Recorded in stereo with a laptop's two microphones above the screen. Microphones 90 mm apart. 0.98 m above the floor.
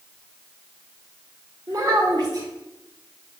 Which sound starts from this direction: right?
A child speaking, at 1.7 s.